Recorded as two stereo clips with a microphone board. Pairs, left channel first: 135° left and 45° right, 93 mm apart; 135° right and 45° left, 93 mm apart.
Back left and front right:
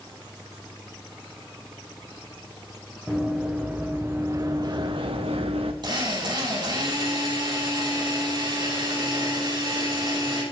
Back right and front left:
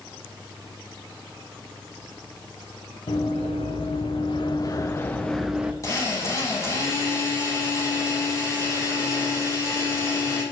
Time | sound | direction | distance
3.1 | running footsteps | 125° right | 3 m
5.8 | a drill | 80° right | 5.5 m